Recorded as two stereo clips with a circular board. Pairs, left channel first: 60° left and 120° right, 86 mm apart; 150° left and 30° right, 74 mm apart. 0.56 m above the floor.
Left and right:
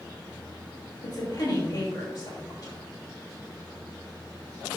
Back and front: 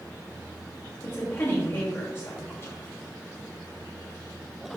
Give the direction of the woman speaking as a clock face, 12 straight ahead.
9 o'clock.